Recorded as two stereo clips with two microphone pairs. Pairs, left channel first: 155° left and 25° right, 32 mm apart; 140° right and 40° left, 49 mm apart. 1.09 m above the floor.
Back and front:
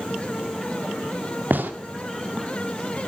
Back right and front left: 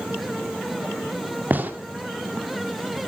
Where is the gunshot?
15° right, 2 m.